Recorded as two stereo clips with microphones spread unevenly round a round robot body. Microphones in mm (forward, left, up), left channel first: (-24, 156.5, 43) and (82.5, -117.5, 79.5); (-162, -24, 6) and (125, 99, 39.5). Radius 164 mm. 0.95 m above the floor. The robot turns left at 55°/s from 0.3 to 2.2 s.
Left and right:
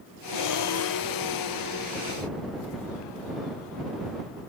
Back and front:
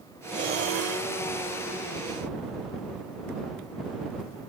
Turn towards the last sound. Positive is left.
turn(degrees=-10)